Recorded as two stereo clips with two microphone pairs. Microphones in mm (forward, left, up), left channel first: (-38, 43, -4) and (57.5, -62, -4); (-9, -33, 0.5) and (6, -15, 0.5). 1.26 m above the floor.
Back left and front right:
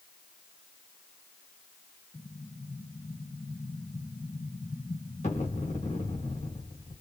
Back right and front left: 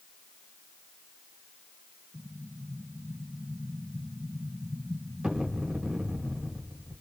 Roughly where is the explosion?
Left.